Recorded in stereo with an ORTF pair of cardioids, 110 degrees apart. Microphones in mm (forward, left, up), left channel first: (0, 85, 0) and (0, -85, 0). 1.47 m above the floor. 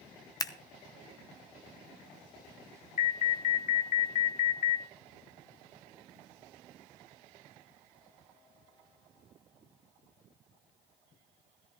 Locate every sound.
0.4 s scissors: 20° left, 1.0 m
3.0 s an alarm: 50° left, 0.9 m